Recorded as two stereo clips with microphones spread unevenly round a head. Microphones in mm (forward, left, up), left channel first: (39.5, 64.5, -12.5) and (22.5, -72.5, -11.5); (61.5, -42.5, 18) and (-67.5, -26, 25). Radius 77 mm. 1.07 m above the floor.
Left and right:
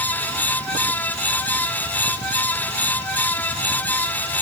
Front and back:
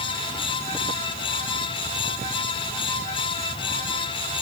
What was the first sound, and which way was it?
Only background noise.